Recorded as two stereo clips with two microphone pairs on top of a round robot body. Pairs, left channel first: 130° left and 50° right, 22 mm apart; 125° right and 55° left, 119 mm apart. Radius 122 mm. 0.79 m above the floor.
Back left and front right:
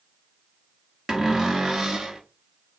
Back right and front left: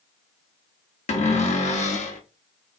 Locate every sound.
1.1 s a cupboard door: 120° right, 1.0 m